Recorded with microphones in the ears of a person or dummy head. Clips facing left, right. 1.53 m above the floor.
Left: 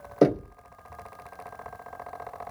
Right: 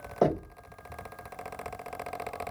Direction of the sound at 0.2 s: 30° left (ahead or behind).